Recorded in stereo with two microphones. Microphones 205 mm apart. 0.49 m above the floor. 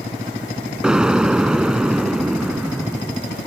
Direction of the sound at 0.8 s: 5° right (ahead or behind).